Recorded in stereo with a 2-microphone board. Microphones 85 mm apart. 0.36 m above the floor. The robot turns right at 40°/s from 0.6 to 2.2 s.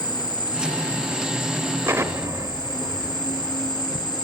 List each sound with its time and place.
0.0 s an insect: 50° left, 4.5 m; by 4.2 s 115° left, 4.5 m
1.9 s an explosion: 30° right (ahead or behind), 0.8 m; by 4.1 s 40° right (ahead or behind), 0.8 m